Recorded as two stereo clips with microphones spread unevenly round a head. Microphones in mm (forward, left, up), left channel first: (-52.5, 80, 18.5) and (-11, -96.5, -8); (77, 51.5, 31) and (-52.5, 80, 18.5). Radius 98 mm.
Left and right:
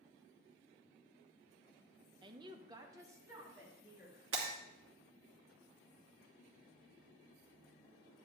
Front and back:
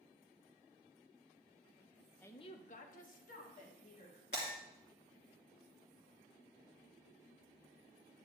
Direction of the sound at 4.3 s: 65° right.